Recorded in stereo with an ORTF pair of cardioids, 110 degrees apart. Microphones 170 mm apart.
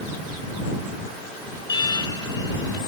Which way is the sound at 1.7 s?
25° left.